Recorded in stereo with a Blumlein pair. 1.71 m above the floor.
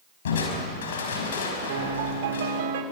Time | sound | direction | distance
0.2 | crushing | 60° left | 5 m
1.7 | a piano | 50° right | 3 m